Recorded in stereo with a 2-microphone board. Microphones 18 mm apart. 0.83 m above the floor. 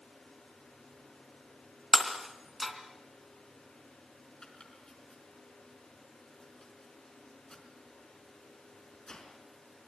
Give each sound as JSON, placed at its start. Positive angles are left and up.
{"t": 1.9, "sound": "breaking glass", "side_deg": 10, "distance_m": 3.0}
{"t": 4.4, "sound": "chopping", "side_deg": 50, "distance_m": 5.0}